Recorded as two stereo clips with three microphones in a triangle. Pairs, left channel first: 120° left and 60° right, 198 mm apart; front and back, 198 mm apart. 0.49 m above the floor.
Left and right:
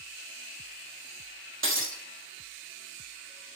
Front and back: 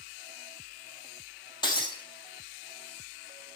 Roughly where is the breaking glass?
Right.